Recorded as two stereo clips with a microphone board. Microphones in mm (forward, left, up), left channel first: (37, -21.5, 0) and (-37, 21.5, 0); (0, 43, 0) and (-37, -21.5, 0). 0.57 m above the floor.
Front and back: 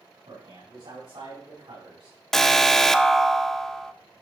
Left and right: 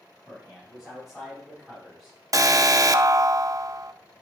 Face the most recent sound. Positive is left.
turn(degrees=-115)